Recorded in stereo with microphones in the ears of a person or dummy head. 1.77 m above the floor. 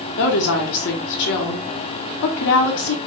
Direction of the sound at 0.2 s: 55° left (ahead or behind).